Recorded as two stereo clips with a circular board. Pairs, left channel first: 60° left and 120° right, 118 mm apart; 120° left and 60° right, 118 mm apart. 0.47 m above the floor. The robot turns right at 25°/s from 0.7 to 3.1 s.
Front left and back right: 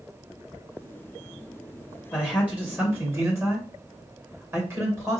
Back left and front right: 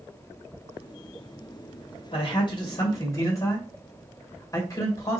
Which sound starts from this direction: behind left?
A man speaking, at 2.1 s.